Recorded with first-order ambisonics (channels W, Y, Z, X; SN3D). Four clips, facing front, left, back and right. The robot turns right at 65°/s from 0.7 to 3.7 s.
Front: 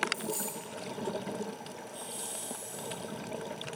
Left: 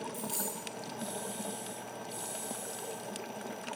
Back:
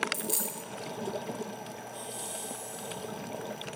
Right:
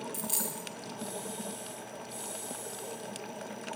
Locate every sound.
0.1 s a dropped coin: 145° right, 0.9 m